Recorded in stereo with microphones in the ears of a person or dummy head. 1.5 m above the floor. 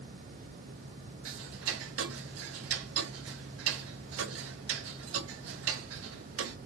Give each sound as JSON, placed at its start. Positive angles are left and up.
{"t": 1.2, "sound": "ticking", "side_deg": -80, "distance_m": 0.7}